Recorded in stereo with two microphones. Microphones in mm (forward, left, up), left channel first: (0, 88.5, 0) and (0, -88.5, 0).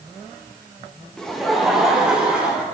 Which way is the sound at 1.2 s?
5° left (ahead or behind).